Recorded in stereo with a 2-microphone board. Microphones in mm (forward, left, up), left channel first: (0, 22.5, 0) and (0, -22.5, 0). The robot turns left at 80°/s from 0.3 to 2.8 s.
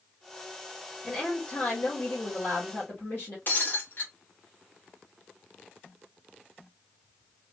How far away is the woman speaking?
About 2 m.